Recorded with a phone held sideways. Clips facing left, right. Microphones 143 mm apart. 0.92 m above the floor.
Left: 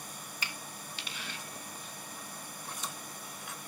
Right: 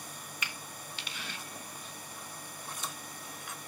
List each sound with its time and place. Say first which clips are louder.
0.4 s a finger snap: even; 35° left (ahead or behind), 0.9 m